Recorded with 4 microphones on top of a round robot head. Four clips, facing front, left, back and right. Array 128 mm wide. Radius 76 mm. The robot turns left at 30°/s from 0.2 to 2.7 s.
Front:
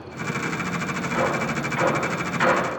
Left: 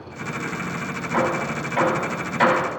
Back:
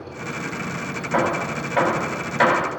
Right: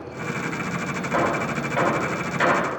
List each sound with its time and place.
1.1 s hammering: 150° right, 4 m; by 2.7 s 165° left, 4 m